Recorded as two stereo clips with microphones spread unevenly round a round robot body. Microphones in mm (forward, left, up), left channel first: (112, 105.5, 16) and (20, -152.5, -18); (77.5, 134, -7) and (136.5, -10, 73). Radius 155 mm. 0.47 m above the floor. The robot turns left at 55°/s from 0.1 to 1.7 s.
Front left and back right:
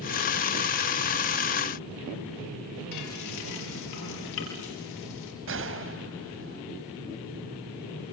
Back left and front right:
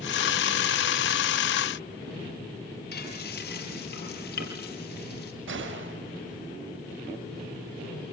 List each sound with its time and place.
2.9 s frying: 110° left, 5.5 m
5.5 s a gunshot: 70° right, 2.5 m